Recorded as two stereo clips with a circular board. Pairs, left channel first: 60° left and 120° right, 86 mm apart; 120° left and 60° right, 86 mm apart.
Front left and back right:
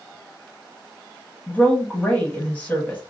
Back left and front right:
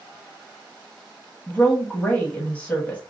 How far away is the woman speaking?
About 1.1 m.